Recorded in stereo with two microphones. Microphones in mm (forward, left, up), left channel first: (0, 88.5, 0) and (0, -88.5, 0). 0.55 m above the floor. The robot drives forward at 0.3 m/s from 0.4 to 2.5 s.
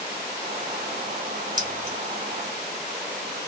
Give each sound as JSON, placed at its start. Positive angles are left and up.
{"t": 1.6, "sound": "keys jangling", "side_deg": -55, "distance_m": 1.5}